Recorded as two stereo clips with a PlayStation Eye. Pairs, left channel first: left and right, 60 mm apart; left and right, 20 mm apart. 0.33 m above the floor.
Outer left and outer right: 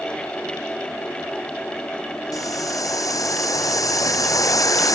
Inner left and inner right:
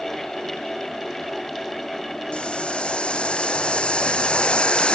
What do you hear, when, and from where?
2.3 s boiling: 75° left (ahead or behind)